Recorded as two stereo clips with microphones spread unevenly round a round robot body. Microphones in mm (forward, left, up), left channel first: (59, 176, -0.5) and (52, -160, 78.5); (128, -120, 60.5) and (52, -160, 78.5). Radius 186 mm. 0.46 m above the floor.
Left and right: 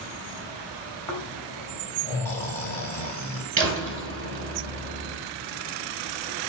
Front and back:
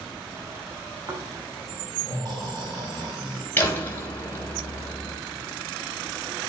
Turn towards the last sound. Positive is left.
turn(degrees=-35)